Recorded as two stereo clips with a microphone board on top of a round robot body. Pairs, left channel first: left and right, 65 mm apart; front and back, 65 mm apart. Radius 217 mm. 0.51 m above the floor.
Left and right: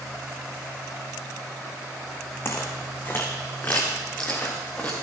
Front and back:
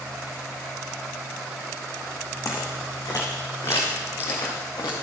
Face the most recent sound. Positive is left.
turn(degrees=20)